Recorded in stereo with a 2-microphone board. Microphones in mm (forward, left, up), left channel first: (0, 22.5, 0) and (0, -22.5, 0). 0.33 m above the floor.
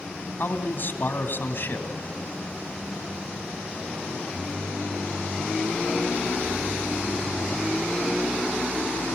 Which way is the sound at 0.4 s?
55° left (ahead or behind).